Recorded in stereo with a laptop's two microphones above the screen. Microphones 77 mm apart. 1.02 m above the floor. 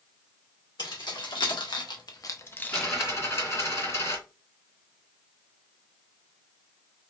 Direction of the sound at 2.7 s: 40° left (ahead or behind).